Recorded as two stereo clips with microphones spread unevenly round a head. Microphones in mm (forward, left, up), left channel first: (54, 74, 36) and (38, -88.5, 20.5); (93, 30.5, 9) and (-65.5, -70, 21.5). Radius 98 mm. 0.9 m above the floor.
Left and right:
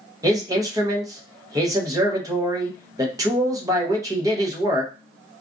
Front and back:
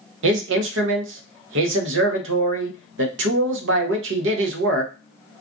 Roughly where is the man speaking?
Behind.